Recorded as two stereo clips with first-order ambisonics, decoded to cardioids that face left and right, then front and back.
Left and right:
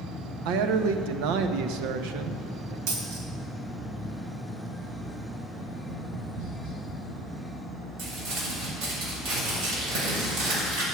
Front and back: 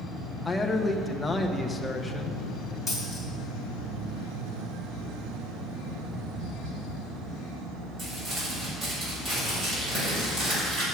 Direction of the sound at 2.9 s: 85° right.